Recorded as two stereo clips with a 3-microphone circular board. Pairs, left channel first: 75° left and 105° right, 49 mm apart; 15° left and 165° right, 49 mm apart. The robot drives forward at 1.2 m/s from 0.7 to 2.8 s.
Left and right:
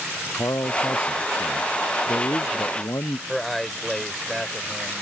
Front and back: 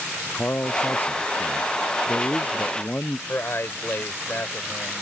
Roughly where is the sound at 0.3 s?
Ahead left.